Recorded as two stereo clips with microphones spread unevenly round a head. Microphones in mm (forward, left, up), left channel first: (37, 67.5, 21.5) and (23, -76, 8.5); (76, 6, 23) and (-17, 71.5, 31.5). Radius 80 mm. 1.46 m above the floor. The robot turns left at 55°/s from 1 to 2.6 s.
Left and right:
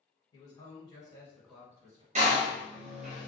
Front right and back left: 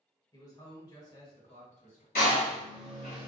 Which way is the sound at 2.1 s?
55° right.